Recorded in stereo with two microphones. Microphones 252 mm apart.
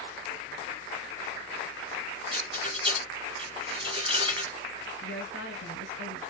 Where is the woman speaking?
50° left (ahead or behind), 3 m.